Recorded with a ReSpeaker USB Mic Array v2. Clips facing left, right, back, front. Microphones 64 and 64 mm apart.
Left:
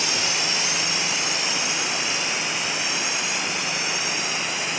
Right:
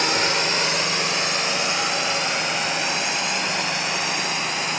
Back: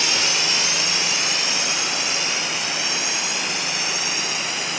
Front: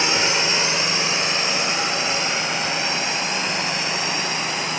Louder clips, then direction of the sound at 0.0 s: Right 5 dB, front 3 dB; 55° right.